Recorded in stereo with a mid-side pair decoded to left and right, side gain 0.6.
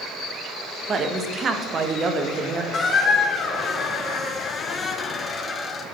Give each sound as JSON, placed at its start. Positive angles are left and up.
{"t": 0.9, "sound": "a woman speaking", "azimuth_deg": -35, "distance_m": 0.8}
{"t": 2.7, "sound": "a squeak", "azimuth_deg": 25, "distance_m": 0.9}